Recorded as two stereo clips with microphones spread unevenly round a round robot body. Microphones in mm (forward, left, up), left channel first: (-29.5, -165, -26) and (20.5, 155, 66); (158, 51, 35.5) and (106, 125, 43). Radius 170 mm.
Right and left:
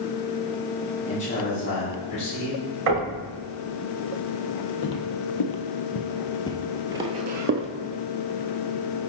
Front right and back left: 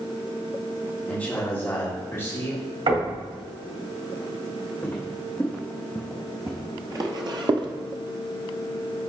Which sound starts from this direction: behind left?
Knocking, at 2.9 s.